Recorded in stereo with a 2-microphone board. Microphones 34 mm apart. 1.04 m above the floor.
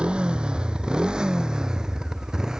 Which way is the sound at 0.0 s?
25° right (ahead or behind).